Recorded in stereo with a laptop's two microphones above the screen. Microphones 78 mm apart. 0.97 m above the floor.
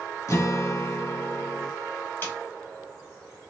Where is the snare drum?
25° left (ahead or behind), 2.0 m.